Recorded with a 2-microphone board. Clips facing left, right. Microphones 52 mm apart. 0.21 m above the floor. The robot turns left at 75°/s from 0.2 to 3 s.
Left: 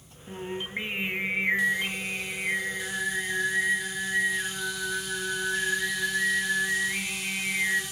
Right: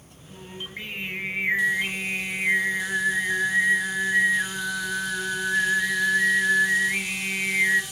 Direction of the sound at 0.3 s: 75° left.